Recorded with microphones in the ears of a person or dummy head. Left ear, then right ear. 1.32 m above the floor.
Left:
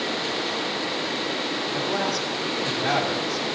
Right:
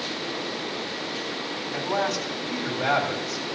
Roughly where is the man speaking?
Right.